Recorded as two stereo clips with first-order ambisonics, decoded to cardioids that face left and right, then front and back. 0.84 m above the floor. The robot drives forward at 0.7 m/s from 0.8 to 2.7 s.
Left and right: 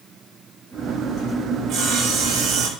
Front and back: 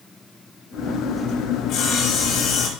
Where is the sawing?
45° right, 4 m; by 2.7 s 55° right, 3.5 m.